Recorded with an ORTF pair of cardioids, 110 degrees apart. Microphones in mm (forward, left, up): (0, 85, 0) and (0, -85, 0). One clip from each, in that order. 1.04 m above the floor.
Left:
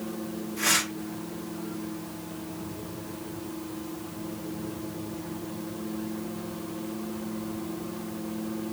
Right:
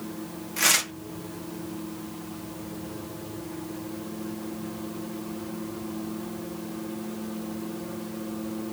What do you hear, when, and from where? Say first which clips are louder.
0.6 s tearing paper: right 3 dB; 70° right, 0.7 m